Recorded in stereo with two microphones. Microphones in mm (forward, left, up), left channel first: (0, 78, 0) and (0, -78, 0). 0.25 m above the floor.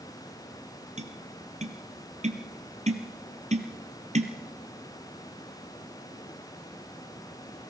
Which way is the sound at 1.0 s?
45° right (ahead or behind).